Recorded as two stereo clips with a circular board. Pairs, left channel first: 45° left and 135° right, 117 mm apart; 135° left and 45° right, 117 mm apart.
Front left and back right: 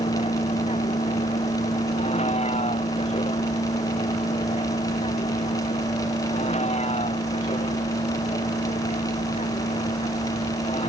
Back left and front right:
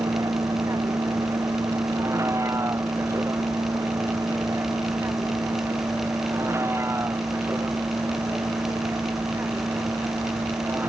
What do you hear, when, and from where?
0.0 s a vehicle: 20° left; by 10.9 s 25° left